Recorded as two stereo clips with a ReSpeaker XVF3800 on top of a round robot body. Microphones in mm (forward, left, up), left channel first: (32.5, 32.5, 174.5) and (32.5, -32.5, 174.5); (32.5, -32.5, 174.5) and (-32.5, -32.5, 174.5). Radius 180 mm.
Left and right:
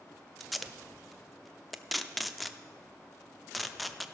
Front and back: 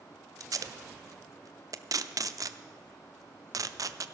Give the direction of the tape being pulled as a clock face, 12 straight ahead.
6 o'clock.